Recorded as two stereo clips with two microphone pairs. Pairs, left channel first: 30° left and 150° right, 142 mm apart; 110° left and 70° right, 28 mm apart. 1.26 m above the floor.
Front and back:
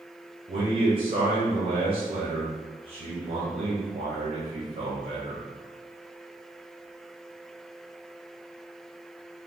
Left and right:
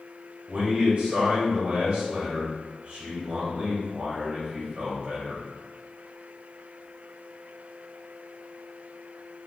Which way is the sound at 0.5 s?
125° right.